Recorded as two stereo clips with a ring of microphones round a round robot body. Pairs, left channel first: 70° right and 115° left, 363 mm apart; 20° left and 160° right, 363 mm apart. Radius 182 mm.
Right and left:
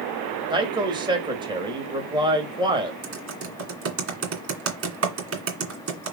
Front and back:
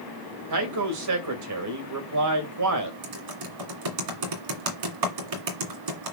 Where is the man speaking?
175° right, 2 m.